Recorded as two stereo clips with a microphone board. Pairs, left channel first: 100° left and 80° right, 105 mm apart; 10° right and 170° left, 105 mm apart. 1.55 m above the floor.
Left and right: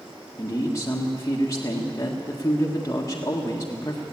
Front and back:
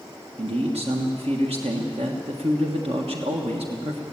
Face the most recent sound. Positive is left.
turn(degrees=160)